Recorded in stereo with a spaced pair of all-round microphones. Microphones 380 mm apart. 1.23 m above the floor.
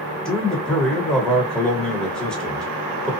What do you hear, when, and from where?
0.2 s a man speaking: centre (ahead or behind), 1.1 m